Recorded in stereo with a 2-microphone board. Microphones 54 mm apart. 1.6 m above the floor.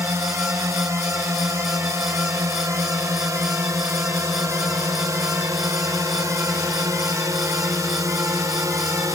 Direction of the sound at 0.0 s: 65° right (ahead or behind).